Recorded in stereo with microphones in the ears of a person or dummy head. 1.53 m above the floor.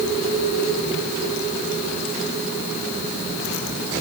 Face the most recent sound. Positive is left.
No sound to turn to.